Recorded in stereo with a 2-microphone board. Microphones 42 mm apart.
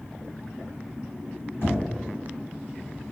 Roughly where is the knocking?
Left.